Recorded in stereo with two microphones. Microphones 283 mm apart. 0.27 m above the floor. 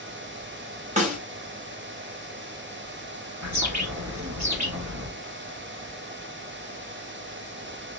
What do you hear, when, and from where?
1.0 s a snare drum: 25° right (ahead or behind), 1.7 m
3.4 s a bird: 75° right (ahead or behind), 1.9 m